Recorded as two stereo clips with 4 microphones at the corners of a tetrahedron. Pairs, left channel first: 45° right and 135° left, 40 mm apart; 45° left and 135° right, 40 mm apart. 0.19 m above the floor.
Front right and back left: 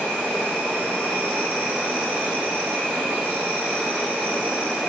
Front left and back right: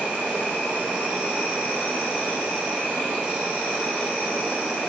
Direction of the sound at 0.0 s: 165° left.